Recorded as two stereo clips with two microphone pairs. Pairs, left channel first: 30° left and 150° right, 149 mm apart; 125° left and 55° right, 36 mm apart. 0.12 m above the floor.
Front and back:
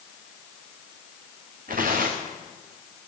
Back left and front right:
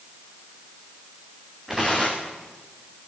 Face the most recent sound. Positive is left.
turn(degrees=-135)